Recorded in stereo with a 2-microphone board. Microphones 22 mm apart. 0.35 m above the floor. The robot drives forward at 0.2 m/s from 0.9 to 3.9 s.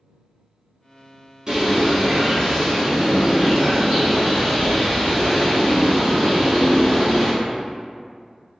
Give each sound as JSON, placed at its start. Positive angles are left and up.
{"t": 1.5, "sound": "a bird", "side_deg": -30, "distance_m": 1.0}